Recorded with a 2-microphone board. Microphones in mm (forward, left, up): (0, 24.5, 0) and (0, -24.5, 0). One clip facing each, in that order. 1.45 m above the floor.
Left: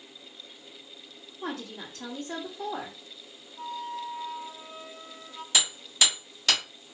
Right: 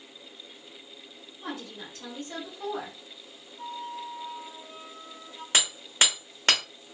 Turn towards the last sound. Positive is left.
turn(degrees=-45)  # may be behind; listen again after turning